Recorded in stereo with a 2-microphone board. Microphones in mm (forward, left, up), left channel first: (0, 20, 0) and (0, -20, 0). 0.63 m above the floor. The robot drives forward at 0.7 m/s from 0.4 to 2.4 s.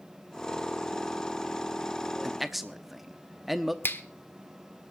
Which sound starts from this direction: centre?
A man speaking, at 2.2 s.